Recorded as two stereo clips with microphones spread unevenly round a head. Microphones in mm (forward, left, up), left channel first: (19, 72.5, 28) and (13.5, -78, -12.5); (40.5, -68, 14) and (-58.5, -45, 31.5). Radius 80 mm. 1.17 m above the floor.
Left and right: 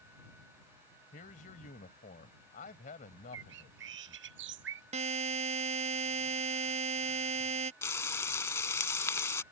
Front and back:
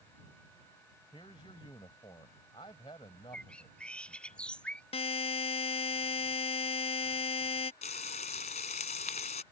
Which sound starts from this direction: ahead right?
A buzzer, at 4.9 s.